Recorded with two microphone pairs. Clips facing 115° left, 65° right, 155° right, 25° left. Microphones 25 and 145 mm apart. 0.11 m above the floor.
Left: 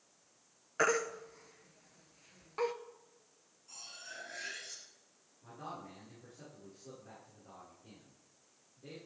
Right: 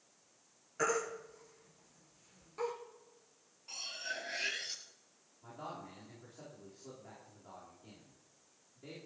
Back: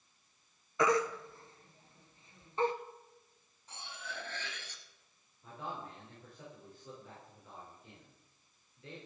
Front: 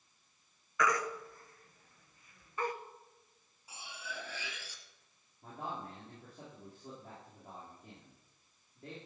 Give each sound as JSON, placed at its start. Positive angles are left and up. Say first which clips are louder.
{"t": 0.8, "sound": "a baby crying", "louder": "left 3 dB, back 4 dB", "azimuth_deg": 150, "distance_m": 1.1}
{"t": 3.7, "sound": "cutlery clinking", "louder": "right 8 dB, even", "azimuth_deg": -55, "distance_m": 1.4}
{"t": 5.4, "sound": "a man speaking", "louder": "even, front 1 dB", "azimuth_deg": 0, "distance_m": 7.5}